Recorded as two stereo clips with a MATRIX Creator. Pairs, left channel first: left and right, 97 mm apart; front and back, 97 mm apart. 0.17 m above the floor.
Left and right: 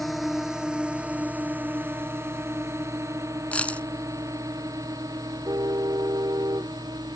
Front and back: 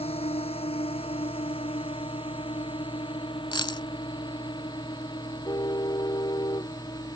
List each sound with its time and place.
0.0 s a drone: straight ahead; by 7.2 s 45° right
3.5 s a dropped coin: 15° left
5.5 s a car horn: 45° right